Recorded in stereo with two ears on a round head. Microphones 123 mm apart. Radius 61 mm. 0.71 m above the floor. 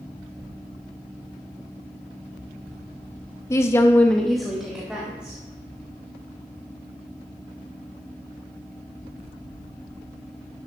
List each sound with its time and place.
3.5 s a woman speaking: 20° left (ahead or behind), 0.9 m; by 5.4 s 10° right (ahead or behind), 2 m